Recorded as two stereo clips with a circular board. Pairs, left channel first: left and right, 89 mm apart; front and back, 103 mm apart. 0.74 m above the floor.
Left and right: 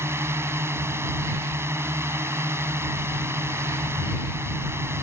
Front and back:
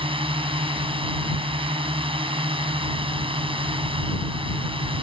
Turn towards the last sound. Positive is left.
turn(degrees=-150)